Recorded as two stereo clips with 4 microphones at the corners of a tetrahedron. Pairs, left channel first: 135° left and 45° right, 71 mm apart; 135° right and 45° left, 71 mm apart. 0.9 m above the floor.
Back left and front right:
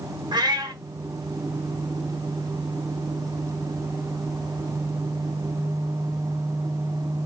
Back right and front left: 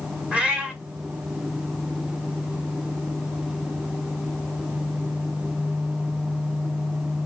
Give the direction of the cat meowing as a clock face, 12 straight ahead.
1 o'clock.